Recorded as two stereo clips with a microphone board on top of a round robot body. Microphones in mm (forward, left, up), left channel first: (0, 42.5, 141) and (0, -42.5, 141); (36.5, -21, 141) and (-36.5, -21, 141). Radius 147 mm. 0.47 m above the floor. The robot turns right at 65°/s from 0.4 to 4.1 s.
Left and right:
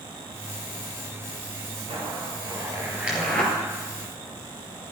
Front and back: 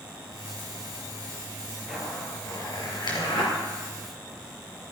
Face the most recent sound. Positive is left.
turn(degrees=55)